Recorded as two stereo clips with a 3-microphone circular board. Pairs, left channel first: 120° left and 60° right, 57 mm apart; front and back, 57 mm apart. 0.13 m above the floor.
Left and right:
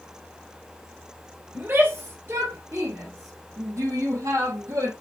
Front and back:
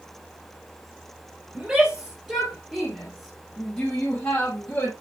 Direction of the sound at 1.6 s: 105° right.